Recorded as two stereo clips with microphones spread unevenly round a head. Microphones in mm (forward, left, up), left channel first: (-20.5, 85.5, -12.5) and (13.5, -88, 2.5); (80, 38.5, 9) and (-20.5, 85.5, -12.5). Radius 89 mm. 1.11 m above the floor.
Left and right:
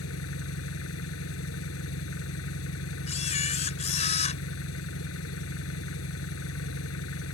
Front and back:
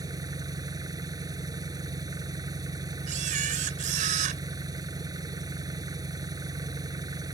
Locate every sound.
0.0 s an engine running: 95° left
3.1 s a camera shutter: 155° left